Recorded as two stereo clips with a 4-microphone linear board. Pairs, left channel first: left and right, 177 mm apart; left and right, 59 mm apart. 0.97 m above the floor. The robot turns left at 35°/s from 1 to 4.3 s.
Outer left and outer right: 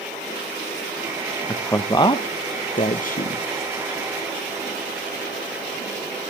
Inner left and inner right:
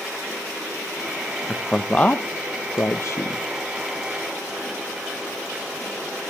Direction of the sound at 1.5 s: 10° left (ahead or behind).